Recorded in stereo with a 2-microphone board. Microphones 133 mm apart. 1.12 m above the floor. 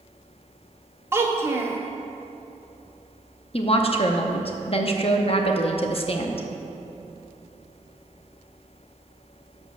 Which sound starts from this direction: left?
A woman speaking, at 3.5 s.